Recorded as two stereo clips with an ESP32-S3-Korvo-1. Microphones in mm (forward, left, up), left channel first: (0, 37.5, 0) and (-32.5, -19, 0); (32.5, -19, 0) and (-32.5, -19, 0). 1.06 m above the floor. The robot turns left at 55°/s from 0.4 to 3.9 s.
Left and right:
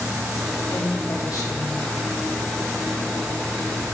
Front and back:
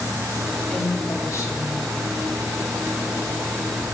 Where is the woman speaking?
75° left, 2.5 m; by 1.8 s 15° left, 2.5 m.